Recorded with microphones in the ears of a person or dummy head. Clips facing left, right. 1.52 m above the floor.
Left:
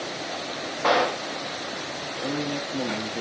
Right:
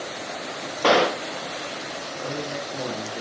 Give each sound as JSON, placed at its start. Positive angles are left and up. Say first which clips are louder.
{"t": 0.8, "sound": "a gunshot", "louder": "right 3 dB", "side_deg": -35, "distance_m": 0.8}
{"t": 2.2, "sound": "a man speaking", "louder": "left 3 dB", "side_deg": 20, "distance_m": 5.5}